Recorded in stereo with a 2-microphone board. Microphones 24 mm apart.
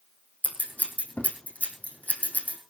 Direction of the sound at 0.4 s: 80° left.